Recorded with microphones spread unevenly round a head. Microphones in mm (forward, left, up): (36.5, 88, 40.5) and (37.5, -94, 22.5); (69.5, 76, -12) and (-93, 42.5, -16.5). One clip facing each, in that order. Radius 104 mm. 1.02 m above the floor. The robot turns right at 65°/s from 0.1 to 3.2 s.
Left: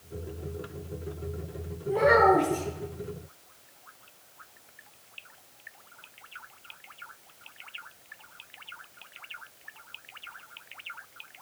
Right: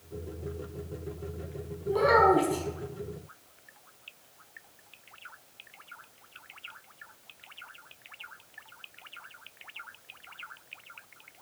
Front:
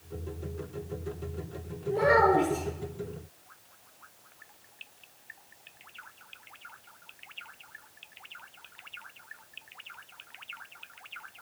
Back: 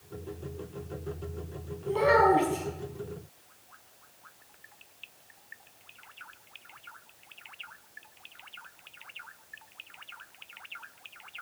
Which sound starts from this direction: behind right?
A child speaking, at 1.9 s.